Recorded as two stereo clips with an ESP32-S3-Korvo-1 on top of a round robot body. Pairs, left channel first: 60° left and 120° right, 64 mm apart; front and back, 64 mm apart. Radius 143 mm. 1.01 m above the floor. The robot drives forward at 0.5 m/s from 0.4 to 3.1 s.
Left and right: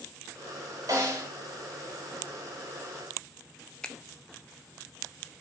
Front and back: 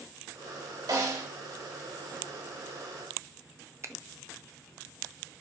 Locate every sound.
0.9 s a snare drum: 160° right, 3.5 m
3.8 s a finger snap: 135° left, 0.7 m